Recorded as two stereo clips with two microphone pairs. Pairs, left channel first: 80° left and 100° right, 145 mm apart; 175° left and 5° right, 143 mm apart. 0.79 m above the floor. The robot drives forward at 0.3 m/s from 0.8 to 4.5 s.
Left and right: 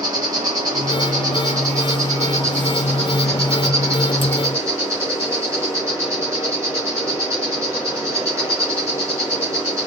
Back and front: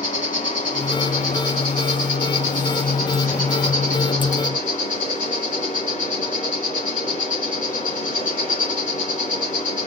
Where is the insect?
160° right, 2 m; by 9.9 s 170° right, 3 m.